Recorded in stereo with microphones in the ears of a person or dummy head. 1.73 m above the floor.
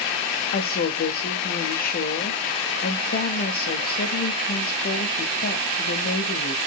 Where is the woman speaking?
45° left (ahead or behind), 0.9 m.